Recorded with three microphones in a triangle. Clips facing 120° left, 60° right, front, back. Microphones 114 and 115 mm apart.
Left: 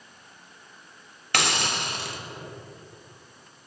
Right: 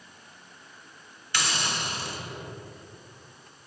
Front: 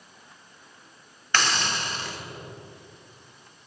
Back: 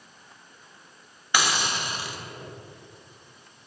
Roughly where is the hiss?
Left.